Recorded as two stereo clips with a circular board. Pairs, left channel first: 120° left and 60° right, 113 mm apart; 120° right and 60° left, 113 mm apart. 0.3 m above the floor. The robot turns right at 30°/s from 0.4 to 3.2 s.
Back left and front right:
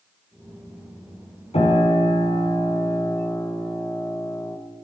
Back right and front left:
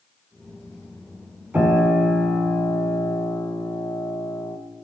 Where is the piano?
135° left, 2.5 m; by 4.6 s 175° right, 2.5 m.